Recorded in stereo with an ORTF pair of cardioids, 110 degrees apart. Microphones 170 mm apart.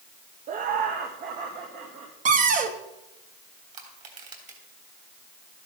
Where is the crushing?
45° right, 3 m.